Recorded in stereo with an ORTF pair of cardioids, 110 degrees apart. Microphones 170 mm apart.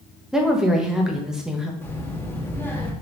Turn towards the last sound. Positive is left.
turn(degrees=15)